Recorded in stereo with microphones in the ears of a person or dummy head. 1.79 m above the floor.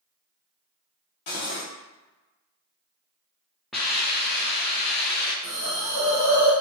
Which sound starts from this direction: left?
Cutlery clinking, at 1.3 s.